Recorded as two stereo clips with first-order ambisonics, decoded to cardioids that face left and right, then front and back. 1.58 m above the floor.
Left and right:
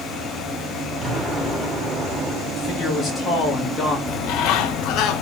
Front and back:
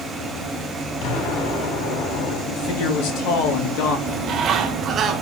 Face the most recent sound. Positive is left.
turn(degrees=120)